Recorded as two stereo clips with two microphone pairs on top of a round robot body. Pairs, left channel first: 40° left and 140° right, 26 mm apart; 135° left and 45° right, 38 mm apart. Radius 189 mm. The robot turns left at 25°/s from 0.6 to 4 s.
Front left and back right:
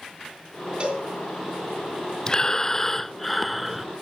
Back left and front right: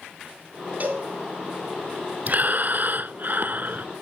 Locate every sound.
0.8 s a cowbell: 90° right, 3 m; by 1.1 s 95° right, 3 m
2.3 s breathing: 20° right, 0.7 m; by 3.9 s 60° right, 0.7 m